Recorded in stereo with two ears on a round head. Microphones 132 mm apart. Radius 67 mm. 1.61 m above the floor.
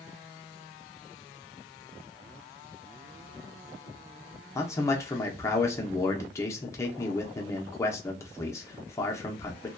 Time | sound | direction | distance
4.5 | a man speaking | 20° left (ahead or behind) | 0.7 m